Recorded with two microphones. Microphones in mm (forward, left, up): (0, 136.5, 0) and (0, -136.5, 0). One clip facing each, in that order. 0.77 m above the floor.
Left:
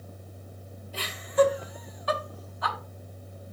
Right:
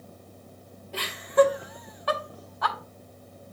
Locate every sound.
0.9 s laughter: 70° right (ahead or behind), 2.5 m